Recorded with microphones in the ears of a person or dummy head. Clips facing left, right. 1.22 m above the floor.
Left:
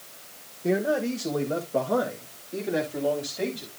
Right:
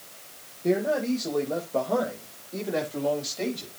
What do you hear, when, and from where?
0.6 s a man speaking: 10° left (ahead or behind), 1.3 m; by 3.7 s 15° left (ahead or behind), 3 m